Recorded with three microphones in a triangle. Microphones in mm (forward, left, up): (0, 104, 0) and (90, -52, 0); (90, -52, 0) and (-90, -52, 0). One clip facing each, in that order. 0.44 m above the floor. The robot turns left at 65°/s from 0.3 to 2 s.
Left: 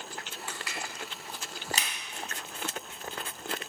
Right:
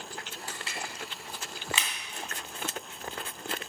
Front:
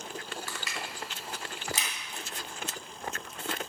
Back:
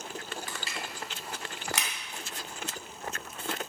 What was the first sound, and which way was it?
Crushing, 110° right.